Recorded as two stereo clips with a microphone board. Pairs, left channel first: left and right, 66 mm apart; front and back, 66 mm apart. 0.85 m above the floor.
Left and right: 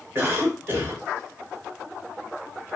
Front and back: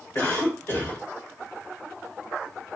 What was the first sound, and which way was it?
A cough, 40° right.